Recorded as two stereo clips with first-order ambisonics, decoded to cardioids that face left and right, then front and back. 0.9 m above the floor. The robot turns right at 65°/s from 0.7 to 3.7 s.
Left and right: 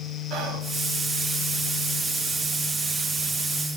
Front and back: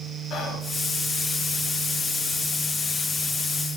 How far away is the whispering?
About 1.3 m.